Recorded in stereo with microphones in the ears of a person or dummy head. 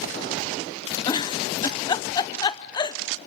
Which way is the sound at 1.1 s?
25° left (ahead or behind).